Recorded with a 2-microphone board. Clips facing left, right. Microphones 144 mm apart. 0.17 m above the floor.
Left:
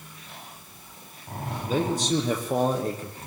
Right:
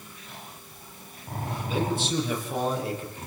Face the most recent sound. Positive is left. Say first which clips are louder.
# left 3 dB
turn(degrees=40)  # may be behind; listen again after turning